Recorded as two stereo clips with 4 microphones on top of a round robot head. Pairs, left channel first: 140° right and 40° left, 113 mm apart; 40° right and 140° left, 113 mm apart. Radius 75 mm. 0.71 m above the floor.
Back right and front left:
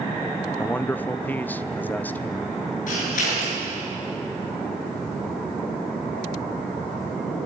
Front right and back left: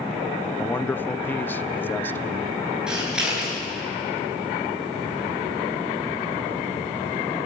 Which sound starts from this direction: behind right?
Scissors, at 2.9 s.